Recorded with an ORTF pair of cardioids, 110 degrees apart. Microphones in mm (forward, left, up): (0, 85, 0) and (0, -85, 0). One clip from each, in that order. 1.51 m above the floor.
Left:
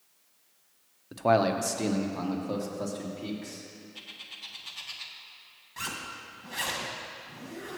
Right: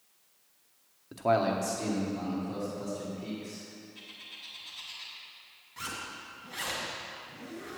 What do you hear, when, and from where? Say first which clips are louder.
1.1 s a man speaking: left 3 dB; 10° left, 0.8 m; by 3.6 s 65° left, 3.5 m
4.0 s a bird: left 4 dB; 45° left, 1.4 m
5.8 s a zipper: left 2 dB; 30° left, 2.0 m